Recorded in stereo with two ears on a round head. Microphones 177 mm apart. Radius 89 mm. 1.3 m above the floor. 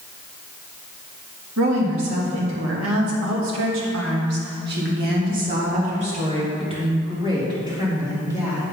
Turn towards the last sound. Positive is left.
turn(degrees=-10)  # may be behind; listen again after turning